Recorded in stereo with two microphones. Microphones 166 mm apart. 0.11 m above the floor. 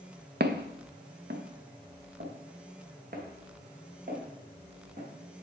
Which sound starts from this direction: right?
Footsteps, at 0.4 s.